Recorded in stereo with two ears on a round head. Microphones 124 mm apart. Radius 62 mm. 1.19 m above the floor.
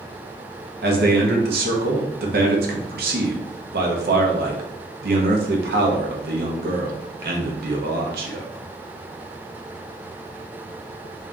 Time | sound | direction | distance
0.8 | a man speaking | 75° right (ahead or behind) | 0.8 m